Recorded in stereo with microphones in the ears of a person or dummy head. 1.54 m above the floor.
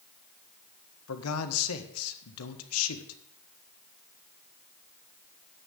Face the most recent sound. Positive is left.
turn(degrees=85)